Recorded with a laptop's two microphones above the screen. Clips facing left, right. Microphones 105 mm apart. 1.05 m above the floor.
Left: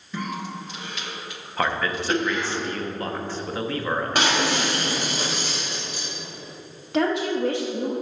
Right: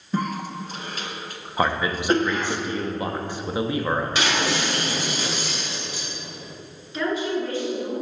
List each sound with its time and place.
0.1 s a cough: 40° right (ahead or behind), 0.7 m
1.6 s a man speaking: 15° right (ahead or behind), 0.7 m
4.2 s breaking glass: 50° left (ahead or behind), 2.5 m
6.9 s a woman speaking: 70° left (ahead or behind), 1.4 m